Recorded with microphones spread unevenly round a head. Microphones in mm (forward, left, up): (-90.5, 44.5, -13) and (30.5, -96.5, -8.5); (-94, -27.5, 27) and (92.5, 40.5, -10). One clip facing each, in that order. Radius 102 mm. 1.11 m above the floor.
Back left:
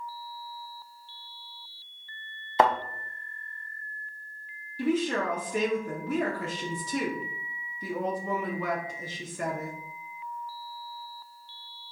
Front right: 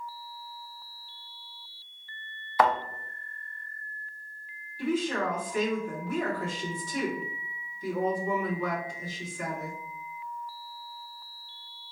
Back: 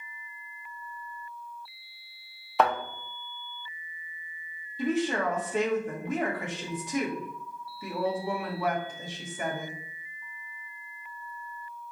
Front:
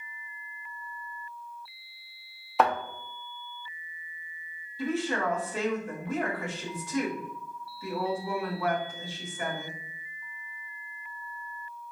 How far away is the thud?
About 0.5 m.